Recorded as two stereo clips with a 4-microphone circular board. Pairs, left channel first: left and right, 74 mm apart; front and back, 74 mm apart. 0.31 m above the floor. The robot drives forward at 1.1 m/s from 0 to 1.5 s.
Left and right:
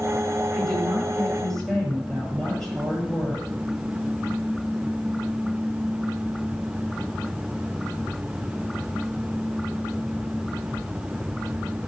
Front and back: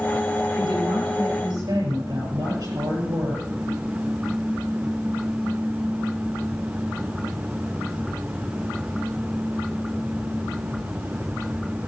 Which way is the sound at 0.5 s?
170° left.